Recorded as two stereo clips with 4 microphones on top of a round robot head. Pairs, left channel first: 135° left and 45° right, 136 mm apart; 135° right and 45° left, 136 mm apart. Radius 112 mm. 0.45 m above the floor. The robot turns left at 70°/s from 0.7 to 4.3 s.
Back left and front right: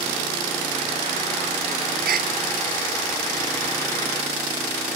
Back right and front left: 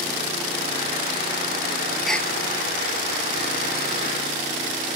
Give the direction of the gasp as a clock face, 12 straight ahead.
1 o'clock.